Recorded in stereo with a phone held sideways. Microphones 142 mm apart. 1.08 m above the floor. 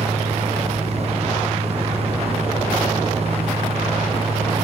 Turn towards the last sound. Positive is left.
turn(degrees=-45)  # may be behind; listen again after turning